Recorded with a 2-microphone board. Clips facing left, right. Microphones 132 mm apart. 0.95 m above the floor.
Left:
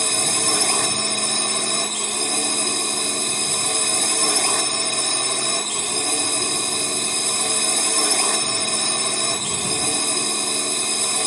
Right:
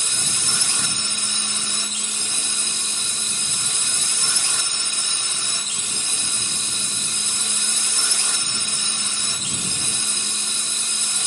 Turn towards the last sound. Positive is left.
turn(degrees=60)  # may be behind; listen again after turning